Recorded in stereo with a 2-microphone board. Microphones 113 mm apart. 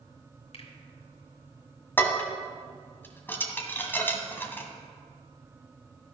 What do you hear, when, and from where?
0.5 s a finger snap: 65° left (ahead or behind), 2.0 m
2.0 s dishes clattering: 20° left (ahead or behind), 1.3 m